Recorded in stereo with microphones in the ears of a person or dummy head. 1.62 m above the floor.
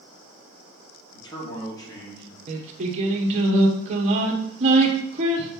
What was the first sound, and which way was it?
A man speaking, 20° left (ahead or behind).